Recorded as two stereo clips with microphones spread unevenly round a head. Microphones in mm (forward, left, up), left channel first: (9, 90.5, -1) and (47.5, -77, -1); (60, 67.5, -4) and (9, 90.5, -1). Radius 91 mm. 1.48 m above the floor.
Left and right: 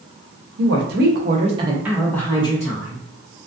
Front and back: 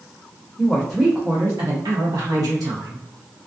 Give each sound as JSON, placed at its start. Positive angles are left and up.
{"t": 0.6, "sound": "a woman speaking", "azimuth_deg": -105, "distance_m": 0.8}